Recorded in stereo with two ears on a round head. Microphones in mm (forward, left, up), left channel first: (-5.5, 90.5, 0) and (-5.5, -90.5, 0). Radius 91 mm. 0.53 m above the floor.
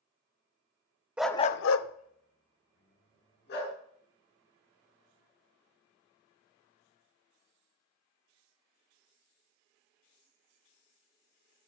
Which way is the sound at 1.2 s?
5° right (ahead or behind).